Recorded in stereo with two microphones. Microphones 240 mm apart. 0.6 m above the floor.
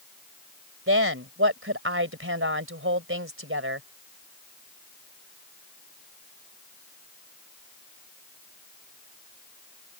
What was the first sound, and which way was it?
A woman speaking, 65° right (ahead or behind).